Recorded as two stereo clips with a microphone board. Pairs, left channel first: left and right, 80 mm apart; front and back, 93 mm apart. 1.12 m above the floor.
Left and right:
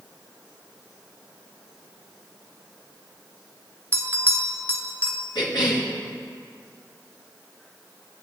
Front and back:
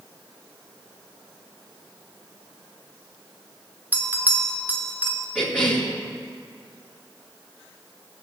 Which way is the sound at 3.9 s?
125° right.